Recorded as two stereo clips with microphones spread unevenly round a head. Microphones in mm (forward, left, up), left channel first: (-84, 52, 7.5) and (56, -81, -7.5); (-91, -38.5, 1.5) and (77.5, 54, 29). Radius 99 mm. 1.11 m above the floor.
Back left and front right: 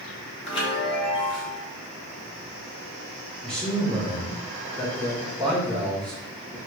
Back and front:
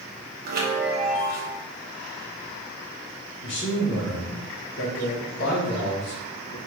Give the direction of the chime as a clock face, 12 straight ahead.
10 o'clock.